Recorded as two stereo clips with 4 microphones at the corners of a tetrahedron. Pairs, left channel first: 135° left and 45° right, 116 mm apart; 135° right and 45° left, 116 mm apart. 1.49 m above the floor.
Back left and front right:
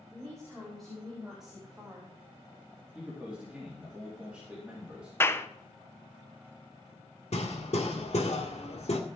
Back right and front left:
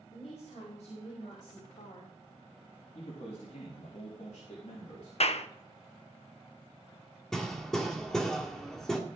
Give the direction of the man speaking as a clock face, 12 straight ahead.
4 o'clock.